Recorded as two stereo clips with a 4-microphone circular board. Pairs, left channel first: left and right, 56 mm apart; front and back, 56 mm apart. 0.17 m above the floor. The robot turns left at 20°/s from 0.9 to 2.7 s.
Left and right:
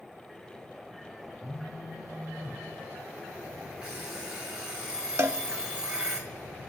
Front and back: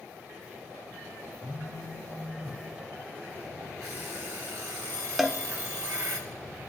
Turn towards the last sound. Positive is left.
turn(degrees=-95)